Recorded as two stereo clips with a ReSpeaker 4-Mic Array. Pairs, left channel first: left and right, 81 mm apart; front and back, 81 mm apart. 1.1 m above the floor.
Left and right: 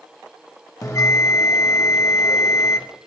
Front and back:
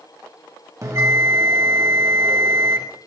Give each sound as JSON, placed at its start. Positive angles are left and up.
{"t": 0.8, "sound": "a bell", "azimuth_deg": 135, "distance_m": 1.4}